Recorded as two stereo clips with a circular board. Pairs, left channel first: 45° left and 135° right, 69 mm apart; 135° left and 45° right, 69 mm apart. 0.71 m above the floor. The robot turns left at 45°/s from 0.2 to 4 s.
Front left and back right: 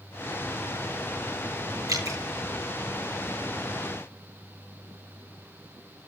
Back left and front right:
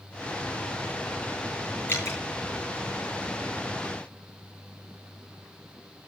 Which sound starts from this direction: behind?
Dripping, at 1.9 s.